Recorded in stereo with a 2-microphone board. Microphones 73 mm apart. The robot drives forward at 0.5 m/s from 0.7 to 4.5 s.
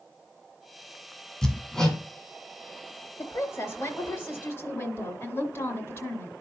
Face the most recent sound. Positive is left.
turn(degrees=35)  # may be behind; listen again after turning